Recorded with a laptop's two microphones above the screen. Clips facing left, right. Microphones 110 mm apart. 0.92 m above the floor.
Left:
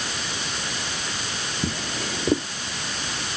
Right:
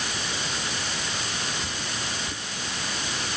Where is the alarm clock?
I don't hear an alarm clock.